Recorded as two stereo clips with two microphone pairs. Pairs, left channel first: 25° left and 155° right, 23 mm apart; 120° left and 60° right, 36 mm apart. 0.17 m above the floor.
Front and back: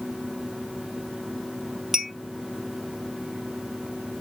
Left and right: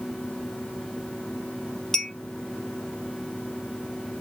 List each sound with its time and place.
1.9 s a clink: 165° left, 0.6 m